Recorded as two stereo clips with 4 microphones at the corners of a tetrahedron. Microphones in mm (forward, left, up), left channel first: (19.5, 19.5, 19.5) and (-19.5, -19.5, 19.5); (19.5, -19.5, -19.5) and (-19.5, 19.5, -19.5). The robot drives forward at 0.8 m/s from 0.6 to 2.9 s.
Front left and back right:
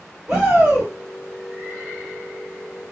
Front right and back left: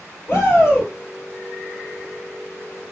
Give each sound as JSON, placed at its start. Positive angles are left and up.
{"t": 0.3, "sound": "a shout", "azimuth_deg": -75, "distance_m": 3.5}